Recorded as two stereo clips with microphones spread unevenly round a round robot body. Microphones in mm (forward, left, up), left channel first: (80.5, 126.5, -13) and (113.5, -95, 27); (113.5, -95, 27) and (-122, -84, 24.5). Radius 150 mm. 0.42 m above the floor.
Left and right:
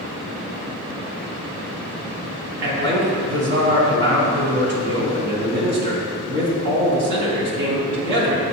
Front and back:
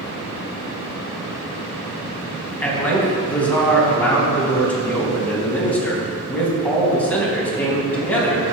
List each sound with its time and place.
2.6 s a man speaking: 85° right, 3.5 m